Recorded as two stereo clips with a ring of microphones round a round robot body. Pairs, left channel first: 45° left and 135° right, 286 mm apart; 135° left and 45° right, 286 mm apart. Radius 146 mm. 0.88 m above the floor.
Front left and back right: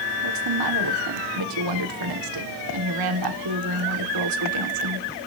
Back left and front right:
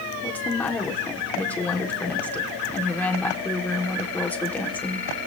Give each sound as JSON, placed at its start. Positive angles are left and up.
{"t": 0.2, "sound": "a woman speaking", "azimuth_deg": -140, "distance_m": 2.0}